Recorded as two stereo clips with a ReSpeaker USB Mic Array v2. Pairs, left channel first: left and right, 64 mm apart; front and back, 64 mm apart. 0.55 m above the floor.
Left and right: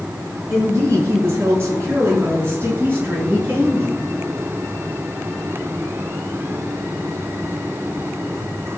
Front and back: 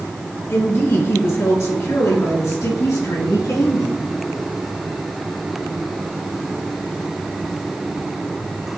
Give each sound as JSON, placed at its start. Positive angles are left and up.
{"t": 0.5, "sound": "a woman speaking", "azimuth_deg": -50, "distance_m": 6.5}